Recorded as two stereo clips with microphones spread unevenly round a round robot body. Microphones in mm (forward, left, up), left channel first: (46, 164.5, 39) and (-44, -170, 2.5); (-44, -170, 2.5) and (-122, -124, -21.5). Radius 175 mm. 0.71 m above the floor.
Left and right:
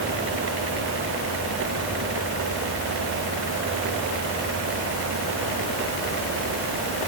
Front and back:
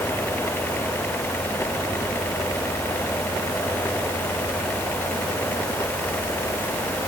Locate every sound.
Only background noise.